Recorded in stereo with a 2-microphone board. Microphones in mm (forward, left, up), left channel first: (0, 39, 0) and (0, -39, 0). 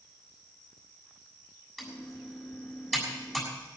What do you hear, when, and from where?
1.8 s typing on a keyboard: 5° left (ahead or behind), 7 m